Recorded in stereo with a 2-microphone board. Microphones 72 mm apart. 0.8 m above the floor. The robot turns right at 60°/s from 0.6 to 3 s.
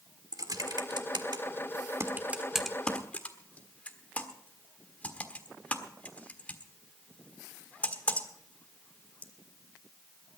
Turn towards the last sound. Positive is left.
turn(degrees=20)  # may be behind; listen again after turning